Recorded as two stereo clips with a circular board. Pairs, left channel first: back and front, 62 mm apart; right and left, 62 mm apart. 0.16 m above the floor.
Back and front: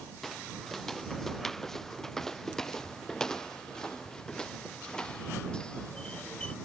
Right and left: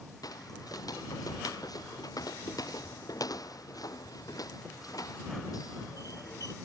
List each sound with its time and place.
0.2 s footsteps: 95° right; by 6.5 s 105° right